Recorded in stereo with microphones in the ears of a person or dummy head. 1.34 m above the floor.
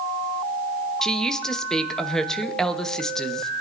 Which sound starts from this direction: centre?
A woman speaking, at 1.0 s.